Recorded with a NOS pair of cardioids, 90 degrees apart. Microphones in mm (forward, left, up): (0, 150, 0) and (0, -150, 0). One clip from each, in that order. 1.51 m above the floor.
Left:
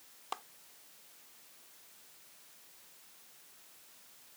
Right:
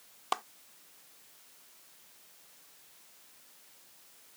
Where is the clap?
55° right.